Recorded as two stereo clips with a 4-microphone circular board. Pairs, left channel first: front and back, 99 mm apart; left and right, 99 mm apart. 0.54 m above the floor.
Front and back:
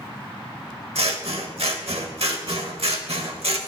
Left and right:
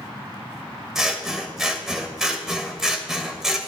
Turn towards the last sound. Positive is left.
turn(degrees=-175)